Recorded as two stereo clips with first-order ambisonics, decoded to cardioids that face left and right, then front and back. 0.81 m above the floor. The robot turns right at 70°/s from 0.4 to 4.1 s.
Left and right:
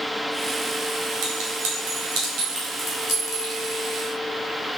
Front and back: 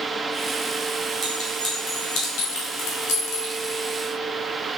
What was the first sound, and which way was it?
A clink, 110° right.